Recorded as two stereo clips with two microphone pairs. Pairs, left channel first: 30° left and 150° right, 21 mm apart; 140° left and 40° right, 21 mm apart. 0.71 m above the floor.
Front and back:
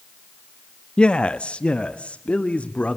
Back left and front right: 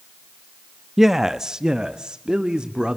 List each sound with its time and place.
1.0 s a man speaking: 35° left, 0.6 m; by 3.0 s 10° left, 1.5 m